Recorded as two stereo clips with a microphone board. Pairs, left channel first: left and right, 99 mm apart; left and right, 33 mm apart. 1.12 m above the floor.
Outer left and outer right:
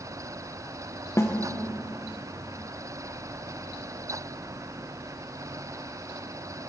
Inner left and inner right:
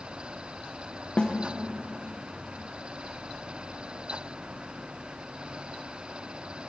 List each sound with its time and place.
1.2 s a snare drum: 30° left (ahead or behind), 0.9 m